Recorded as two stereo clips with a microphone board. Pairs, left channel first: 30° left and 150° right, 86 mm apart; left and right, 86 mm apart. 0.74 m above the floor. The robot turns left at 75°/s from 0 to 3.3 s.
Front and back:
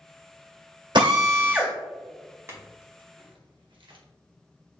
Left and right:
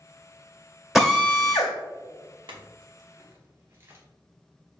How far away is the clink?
About 1.1 m.